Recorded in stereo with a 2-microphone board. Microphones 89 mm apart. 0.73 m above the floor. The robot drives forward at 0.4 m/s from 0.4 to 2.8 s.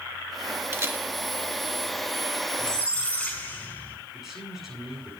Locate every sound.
0.7 s a camera shutter: 30° right (ahead or behind), 1.4 m
2.6 s a squeak: 10° left (ahead or behind), 4 m
4.1 s a man speaking: 5° right (ahead or behind), 8.5 m